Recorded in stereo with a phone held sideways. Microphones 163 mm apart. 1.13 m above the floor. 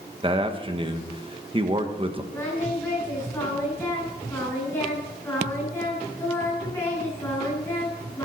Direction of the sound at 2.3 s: 15° left (ahead or behind).